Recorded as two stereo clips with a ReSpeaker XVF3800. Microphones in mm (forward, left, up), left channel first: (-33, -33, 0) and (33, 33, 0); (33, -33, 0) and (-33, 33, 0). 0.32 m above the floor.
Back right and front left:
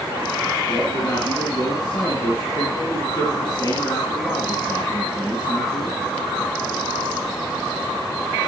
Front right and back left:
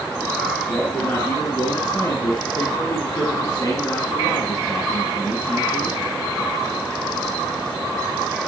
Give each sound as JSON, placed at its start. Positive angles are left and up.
{"t": 0.7, "sound": "a man speaking", "azimuth_deg": -95, "distance_m": 3.0}